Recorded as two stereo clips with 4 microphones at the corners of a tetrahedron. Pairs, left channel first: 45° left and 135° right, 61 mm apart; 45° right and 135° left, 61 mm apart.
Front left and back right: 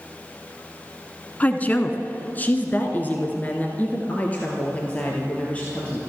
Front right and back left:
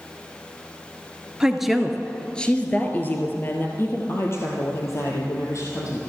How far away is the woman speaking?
About 1.2 m.